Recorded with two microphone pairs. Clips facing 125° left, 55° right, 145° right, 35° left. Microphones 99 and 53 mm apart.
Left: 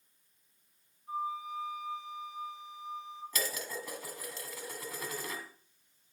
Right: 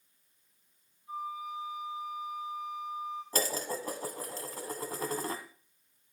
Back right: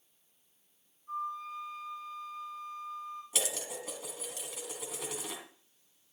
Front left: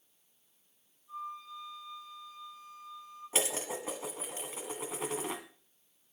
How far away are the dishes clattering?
About 1.6 m.